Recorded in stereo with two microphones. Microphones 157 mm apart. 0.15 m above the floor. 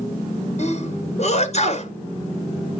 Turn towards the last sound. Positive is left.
turn(degrees=50)  # may be behind; listen again after turning